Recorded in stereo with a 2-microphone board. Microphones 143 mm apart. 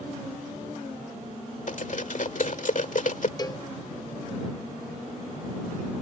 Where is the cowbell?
25° left (ahead or behind).